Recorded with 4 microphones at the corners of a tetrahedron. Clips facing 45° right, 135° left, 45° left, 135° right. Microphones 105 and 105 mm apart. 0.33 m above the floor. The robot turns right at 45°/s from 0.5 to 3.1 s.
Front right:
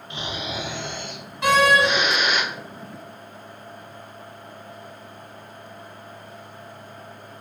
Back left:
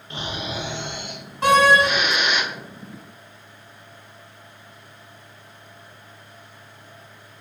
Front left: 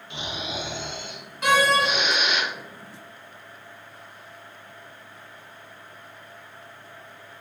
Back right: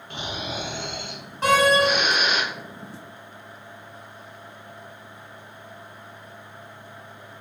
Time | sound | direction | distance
0.1 | snoring | 170° right | 0.7 m
1.4 | a door slam | 175° left | 1.5 m